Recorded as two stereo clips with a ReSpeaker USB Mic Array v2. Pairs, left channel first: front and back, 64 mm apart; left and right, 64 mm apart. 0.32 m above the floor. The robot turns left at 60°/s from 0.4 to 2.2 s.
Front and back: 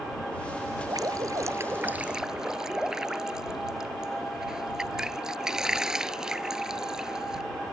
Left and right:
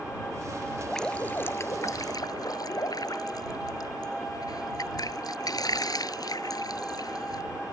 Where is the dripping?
Straight behind; by 7.4 s 100° left.